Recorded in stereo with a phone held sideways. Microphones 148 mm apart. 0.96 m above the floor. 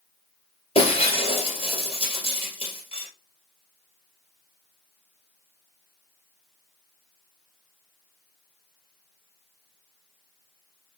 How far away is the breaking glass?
About 2.5 m.